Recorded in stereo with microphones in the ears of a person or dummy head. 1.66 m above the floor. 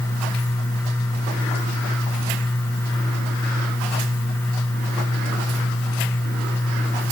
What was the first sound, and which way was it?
Only background noise.